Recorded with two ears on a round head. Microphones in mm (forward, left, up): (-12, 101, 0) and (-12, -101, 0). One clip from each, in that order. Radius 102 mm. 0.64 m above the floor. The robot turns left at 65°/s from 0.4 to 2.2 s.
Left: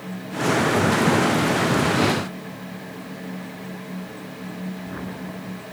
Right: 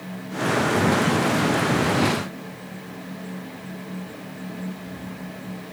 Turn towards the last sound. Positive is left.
No sound to turn to.